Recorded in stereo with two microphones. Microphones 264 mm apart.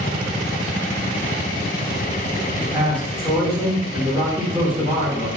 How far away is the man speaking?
About 1.1 m.